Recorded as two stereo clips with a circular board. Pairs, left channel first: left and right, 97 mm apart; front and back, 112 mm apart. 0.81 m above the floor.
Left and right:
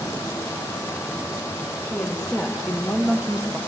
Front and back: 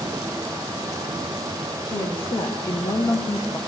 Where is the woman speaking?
10° left, 1.5 m; by 3.6 s 20° right, 0.9 m.